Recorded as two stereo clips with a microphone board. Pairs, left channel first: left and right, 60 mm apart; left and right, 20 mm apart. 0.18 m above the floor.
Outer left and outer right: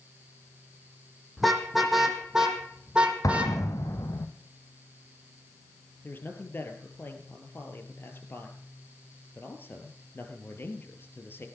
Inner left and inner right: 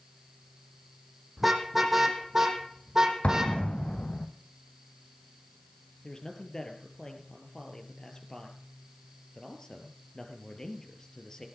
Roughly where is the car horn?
Centre.